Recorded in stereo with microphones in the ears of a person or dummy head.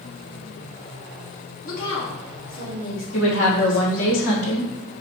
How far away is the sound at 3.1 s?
About 2.0 m.